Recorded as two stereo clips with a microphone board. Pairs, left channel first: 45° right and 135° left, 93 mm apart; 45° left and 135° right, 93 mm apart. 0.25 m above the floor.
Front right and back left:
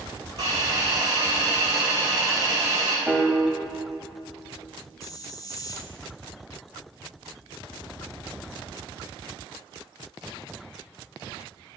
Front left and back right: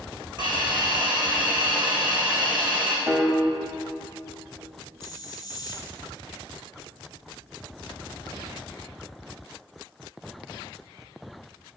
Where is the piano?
140° right, 1.1 m.